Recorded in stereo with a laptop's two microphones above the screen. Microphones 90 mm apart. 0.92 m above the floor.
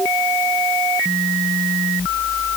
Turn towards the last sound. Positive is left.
No sound to turn to.